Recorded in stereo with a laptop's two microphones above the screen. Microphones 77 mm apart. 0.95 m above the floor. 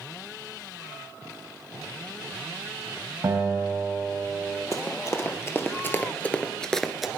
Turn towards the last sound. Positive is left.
turn(degrees=-5)  # may be behind; listen again after turning